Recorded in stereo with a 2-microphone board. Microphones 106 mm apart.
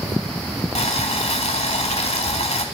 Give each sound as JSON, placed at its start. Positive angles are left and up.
{"t": 0.8, "sound": "boiling", "side_deg": 70, "distance_m": 1.0}